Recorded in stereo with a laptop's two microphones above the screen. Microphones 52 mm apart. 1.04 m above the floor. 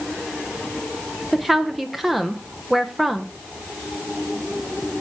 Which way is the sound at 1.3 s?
5° right (ahead or behind).